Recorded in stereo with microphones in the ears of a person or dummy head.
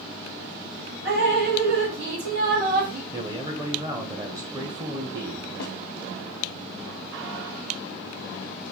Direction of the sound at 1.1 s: 65° right (ahead or behind).